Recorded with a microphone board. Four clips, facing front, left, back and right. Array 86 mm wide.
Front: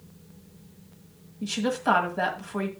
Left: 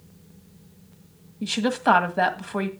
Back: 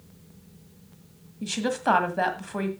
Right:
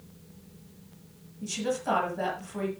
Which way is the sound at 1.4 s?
100° left.